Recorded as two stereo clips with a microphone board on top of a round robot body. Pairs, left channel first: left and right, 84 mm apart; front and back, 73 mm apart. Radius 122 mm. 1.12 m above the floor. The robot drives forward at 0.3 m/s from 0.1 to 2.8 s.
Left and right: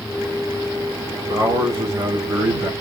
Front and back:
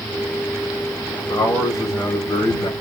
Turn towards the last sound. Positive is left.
turn(degrees=-45)